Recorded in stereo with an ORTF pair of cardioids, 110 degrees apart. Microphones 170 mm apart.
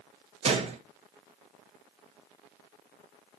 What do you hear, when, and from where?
0.4 s a gunshot: 40° right, 1.2 m